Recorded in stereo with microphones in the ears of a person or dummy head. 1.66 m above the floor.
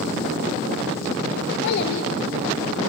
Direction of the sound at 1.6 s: 50° left (ahead or behind).